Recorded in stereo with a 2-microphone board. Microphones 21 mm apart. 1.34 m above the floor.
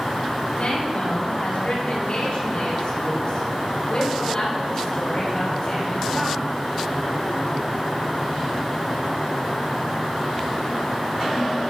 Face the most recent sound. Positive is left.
turn(degrees=35)  # may be behind; listen again after turning